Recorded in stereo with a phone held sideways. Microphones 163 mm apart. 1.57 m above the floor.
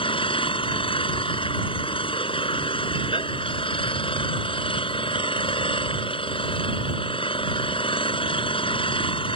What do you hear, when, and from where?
0.0 s an engine running: 30° left (ahead or behind)